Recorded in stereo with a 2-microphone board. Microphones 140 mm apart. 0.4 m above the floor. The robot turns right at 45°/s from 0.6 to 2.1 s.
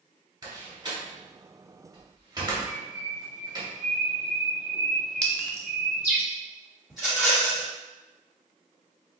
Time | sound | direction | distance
0.4 | a door slam | 30° right (ahead or behind) | 0.9 m
2.7 | a bird | 15° right (ahead or behind) | 1.9 m
5.2 | a clink | 10° left (ahead or behind) | 0.6 m
6.9 | a rattle | 5° right (ahead or behind) | 1.8 m